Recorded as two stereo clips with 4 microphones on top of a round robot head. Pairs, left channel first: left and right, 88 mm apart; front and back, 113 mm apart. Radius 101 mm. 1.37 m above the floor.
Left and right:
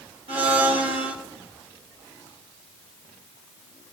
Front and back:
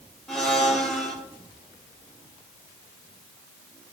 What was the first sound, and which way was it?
A blender, 85° right.